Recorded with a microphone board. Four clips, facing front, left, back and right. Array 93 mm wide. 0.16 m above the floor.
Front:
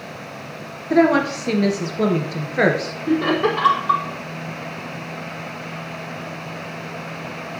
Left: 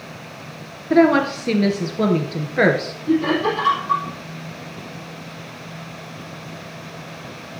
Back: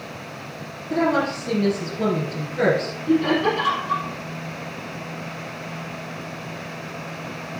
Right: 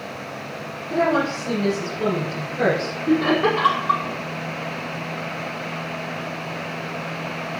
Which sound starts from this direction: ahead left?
A woman speaking, at 0.9 s.